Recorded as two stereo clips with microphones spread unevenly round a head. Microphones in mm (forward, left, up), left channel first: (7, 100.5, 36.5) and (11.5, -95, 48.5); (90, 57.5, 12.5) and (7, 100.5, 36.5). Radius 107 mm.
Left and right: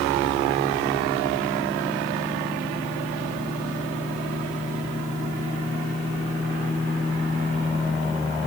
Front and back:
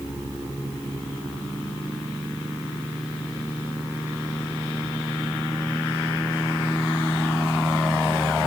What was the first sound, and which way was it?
Only background noise.